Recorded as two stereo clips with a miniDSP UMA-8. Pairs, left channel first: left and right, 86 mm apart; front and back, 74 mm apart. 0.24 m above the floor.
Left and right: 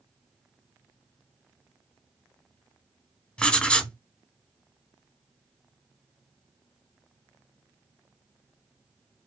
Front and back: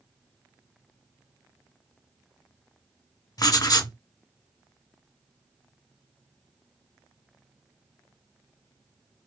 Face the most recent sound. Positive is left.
turn(degrees=10)